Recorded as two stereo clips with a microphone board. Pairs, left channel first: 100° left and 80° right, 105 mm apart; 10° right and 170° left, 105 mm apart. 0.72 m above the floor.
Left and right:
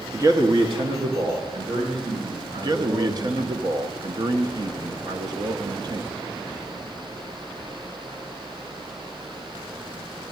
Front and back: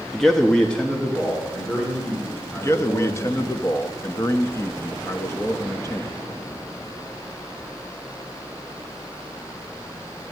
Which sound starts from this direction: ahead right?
A man speaking, at 2.6 s.